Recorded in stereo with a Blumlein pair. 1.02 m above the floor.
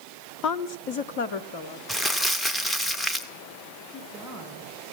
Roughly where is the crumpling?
Ahead.